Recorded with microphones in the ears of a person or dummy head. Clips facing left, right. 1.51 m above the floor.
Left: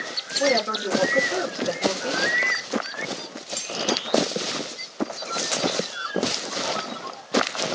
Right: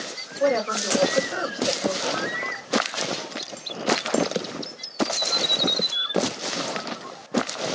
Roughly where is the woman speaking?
Left.